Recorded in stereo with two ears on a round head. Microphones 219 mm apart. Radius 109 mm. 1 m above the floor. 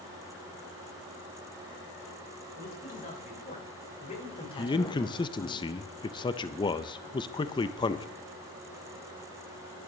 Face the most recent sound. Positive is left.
turn(degrees=20)  # may be behind; listen again after turning